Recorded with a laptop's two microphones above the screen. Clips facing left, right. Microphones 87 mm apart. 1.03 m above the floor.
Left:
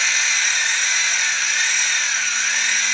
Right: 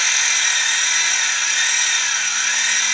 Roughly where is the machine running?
Right.